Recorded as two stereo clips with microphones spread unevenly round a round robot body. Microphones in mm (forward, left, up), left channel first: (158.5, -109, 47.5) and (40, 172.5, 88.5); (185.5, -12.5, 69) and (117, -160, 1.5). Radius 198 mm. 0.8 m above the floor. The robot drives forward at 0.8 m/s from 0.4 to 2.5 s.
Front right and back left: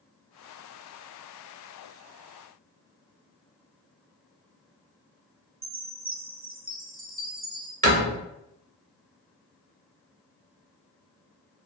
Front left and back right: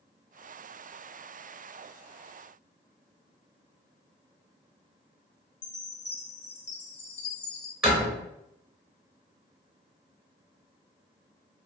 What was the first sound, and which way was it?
A chime, 50° left.